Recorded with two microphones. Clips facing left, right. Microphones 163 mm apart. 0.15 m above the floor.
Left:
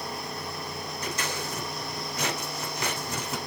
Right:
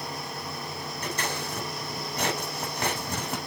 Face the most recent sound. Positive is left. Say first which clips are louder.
# right 1 dB
turn(degrees=-55)  # may be behind; listen again after turning